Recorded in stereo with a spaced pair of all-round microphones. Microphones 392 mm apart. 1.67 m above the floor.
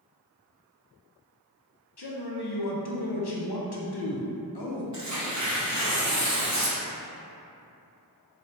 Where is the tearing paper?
45° right (ahead or behind), 0.8 m.